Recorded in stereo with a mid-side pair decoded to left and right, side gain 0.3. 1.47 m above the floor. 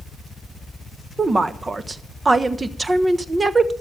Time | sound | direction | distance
1.2 | a woman speaking | 35° right | 1.1 m